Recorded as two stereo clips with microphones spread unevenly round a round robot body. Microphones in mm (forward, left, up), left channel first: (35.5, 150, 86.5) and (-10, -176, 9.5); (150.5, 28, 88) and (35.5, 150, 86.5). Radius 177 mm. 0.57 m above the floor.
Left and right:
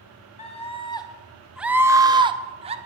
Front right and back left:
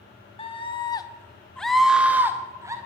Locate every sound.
0.4 s a scream: 5° left, 0.8 m; by 2.8 s 155° right, 1.0 m